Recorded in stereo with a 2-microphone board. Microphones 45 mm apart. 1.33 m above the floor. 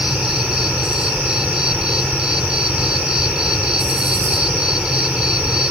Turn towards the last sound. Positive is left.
turn(degrees=-15)  # may be behind; listen again after turning